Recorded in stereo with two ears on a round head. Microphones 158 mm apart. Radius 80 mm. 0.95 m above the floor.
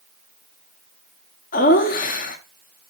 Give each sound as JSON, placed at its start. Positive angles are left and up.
{"t": 1.5, "sound": "laughter", "side_deg": 45, "distance_m": 1.1}